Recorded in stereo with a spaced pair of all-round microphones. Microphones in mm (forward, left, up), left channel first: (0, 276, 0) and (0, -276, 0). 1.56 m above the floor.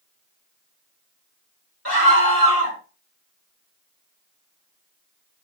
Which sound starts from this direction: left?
A scream, at 1.9 s.